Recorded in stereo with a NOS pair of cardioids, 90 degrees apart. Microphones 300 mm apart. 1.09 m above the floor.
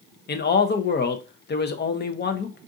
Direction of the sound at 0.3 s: 35° left.